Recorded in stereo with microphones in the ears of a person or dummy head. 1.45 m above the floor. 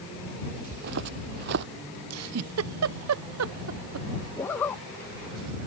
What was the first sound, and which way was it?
Footsteps, 55° right (ahead or behind).